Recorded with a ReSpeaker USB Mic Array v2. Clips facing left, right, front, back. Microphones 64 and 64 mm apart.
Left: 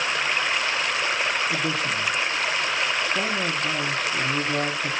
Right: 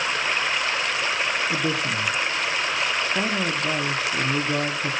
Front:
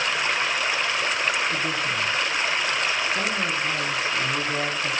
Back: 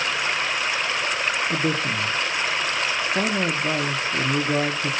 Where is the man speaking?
170° right, 0.9 m.